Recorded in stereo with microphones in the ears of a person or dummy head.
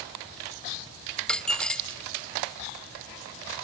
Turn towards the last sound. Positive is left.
turn(degrees=5)  # may be behind; listen again after turning